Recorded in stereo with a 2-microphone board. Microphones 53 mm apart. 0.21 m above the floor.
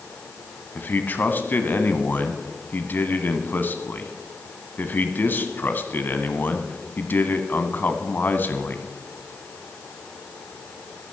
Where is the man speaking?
35° left (ahead or behind), 1.4 m.